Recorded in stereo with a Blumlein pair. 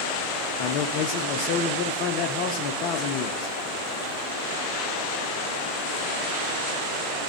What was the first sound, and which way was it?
A man speaking, 40° left.